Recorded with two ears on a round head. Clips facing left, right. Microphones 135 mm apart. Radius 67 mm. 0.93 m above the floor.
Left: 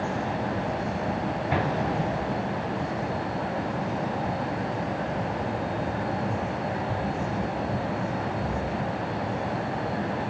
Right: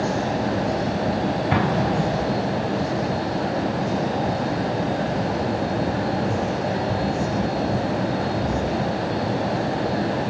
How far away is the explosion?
About 3 m.